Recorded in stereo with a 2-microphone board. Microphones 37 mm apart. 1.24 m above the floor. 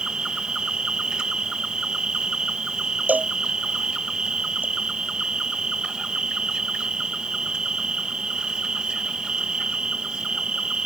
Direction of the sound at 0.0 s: 20° right (ahead or behind).